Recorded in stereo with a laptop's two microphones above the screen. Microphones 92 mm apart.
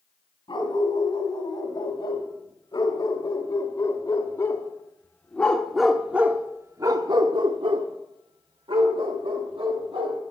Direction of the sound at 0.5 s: 55° left (ahead or behind).